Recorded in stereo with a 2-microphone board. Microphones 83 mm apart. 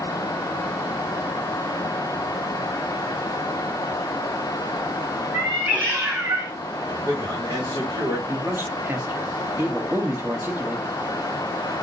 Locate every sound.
5.3 s a cat meowing: 20° right (ahead or behind), 2 m; by 6.5 s 45° right (ahead or behind), 1.4 m
6.8 s a man speaking: 60° right (ahead or behind), 1.9 m
8.3 s a man speaking: 30° right (ahead or behind), 1.2 m